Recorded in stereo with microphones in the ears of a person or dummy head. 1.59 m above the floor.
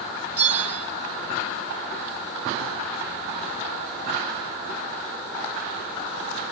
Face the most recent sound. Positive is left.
turn(degrees=-15)  # may be behind; listen again after turning